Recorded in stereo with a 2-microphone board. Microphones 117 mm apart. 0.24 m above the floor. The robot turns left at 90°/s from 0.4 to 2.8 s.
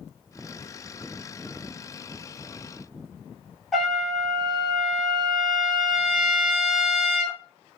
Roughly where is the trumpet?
Centre.